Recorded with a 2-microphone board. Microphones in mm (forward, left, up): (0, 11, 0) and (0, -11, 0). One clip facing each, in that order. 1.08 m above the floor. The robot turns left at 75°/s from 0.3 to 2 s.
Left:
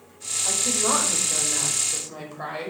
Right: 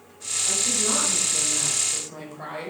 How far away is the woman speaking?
About 6 m.